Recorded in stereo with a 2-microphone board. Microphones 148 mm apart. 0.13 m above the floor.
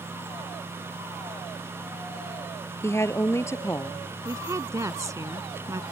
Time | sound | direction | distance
2.8 | a woman speaking | 20° left (ahead or behind) | ?
4.2 | a woman speaking | 20° right (ahead or behind) | ?